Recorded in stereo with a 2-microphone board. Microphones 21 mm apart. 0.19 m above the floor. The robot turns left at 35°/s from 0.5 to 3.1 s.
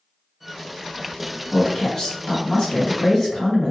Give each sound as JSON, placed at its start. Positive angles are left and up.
{"t": 1.5, "sound": "a woman speaking", "azimuth_deg": 140, "distance_m": 1.3}